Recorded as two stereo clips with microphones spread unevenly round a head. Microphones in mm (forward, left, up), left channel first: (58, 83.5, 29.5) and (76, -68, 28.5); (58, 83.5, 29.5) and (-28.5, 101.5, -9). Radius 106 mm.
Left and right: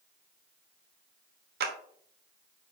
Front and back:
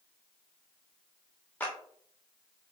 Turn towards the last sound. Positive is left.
turn(degrees=-100)